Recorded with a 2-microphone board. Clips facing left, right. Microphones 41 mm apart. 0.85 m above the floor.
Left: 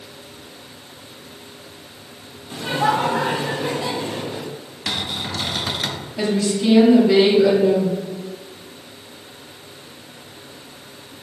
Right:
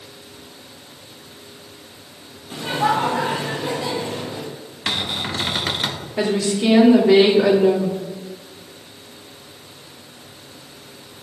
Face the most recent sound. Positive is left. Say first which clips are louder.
# even
turn(degrees=-70)  # may be behind; listen again after turning